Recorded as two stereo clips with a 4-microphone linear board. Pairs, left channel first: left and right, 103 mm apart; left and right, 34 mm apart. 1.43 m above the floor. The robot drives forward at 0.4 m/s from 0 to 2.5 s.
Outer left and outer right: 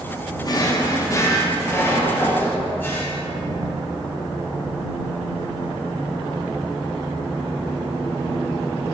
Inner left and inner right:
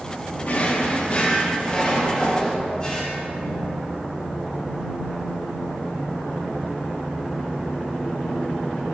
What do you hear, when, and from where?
0.4 s a drawer: 40° left (ahead or behind), 0.7 m; by 3.2 s 20° left (ahead or behind), 1.3 m